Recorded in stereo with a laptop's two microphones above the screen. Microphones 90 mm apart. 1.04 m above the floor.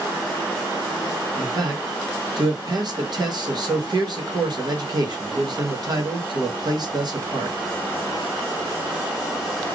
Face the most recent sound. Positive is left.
turn(degrees=-50)  # may be behind; listen again after turning